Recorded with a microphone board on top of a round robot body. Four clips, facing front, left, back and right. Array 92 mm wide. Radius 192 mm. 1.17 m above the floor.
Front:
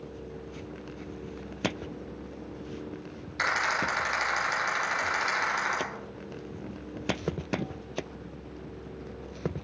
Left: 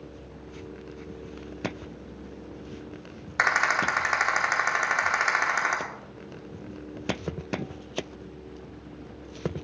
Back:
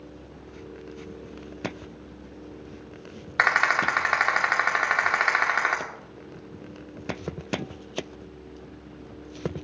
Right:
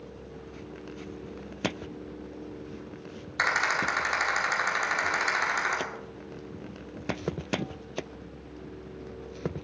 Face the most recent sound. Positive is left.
turn(degrees=155)